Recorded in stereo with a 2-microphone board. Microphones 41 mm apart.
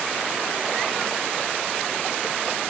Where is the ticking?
No ticking in this recording.